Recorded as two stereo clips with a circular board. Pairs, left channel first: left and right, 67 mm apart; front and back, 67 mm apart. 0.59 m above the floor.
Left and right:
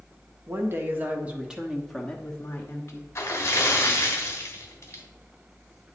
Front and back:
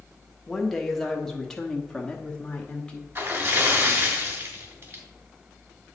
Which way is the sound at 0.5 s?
85° right.